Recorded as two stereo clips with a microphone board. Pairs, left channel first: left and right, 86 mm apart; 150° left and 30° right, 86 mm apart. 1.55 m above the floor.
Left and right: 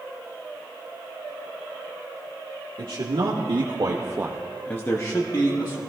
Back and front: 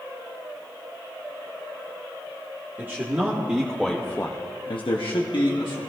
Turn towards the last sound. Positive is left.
turn(degrees=125)